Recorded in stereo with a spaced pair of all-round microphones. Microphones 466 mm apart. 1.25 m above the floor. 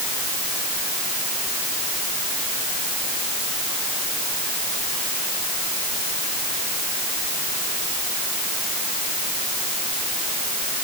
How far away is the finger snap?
I don't hear a finger snap.